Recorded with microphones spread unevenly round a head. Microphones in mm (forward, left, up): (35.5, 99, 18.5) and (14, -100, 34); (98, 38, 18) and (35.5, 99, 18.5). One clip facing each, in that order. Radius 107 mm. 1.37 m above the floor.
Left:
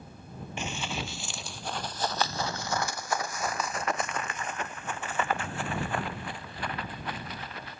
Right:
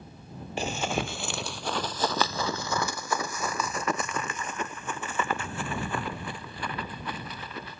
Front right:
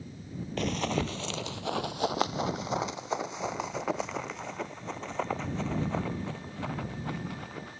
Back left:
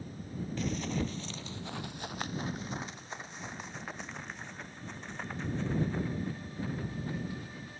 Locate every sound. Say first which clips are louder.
0.6 s running footsteps: right 6 dB, front right 5 dB; 50° right; by 7.8 s 115° right